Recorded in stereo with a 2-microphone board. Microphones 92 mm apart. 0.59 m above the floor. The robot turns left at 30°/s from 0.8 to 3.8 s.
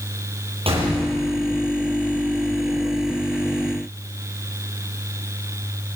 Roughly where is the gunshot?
Right.